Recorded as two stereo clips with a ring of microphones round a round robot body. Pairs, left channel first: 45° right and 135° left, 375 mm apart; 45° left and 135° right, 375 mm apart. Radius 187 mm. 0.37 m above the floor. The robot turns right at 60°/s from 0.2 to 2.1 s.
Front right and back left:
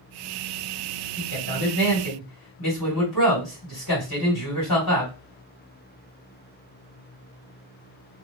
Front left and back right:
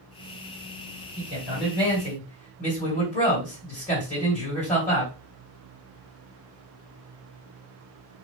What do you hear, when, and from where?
1.2 s a man speaking: 75° right, 1.9 m; by 5.1 s 20° right, 1.9 m